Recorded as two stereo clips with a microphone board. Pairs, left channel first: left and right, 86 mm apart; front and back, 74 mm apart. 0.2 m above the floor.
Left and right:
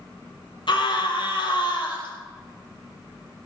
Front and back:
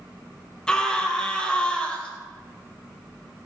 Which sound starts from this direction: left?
A scream, at 0.7 s.